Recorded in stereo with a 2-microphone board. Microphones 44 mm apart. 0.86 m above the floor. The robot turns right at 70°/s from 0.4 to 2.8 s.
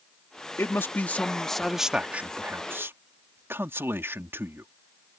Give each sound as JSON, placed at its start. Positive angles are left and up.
{"t": 0.6, "sound": "a man speaking", "azimuth_deg": 105}